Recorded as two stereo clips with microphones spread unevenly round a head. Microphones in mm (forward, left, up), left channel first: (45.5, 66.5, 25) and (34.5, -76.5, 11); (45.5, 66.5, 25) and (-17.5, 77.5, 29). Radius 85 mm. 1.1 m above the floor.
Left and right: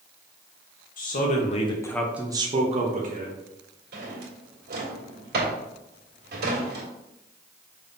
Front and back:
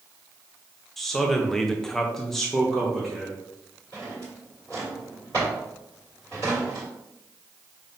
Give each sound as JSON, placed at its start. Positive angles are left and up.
{"t": 1.0, "sound": "a man speaking", "azimuth_deg": 75, "distance_m": 1.1}
{"t": 3.9, "sound": "a drawer", "azimuth_deg": -85, "distance_m": 1.7}